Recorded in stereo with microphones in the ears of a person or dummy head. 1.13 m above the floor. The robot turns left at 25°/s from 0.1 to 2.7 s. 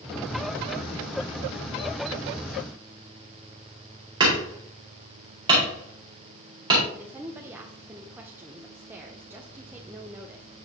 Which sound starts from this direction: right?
Hammering, at 4.2 s.